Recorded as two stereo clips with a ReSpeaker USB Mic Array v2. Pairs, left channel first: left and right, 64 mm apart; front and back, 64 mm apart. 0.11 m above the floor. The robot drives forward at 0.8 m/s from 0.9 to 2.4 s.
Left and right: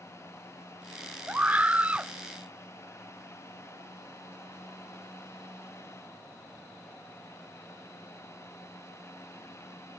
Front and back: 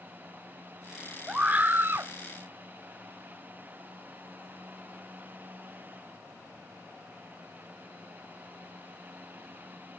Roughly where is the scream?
Behind right.